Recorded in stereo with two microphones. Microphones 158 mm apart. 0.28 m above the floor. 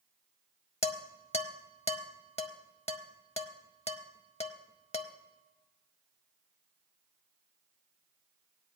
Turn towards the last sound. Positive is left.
turn(degrees=40)  # may be behind; listen again after turning